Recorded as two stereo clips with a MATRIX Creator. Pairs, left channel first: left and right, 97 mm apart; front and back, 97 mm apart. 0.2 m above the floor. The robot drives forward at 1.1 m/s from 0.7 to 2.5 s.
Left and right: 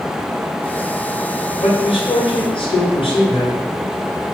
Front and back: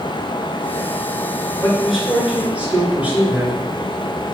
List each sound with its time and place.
1.6 s a man speaking: 80° left, 2.5 m; by 3.6 s 105° left, 2.5 m